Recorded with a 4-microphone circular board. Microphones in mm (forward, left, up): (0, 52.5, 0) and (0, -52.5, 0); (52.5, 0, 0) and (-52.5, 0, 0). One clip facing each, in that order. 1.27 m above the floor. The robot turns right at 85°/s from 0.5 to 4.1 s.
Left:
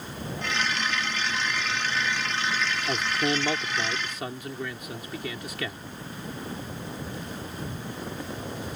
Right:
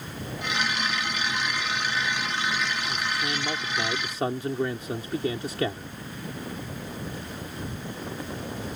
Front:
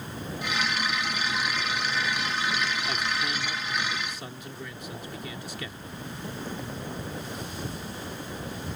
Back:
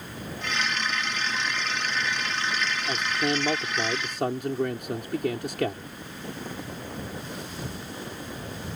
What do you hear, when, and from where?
2.9 s a man speaking: 105° left; by 5.9 s 150° right